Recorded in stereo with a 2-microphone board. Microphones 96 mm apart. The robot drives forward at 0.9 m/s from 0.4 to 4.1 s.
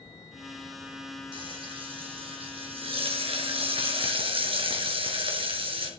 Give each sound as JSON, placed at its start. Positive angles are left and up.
{"t": 1.3, "sound": "frying", "side_deg": -60, "distance_m": 3.5}